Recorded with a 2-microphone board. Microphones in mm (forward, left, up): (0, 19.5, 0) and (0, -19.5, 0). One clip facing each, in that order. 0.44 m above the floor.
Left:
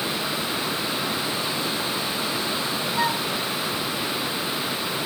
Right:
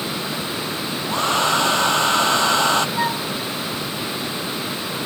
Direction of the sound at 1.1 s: 85° right.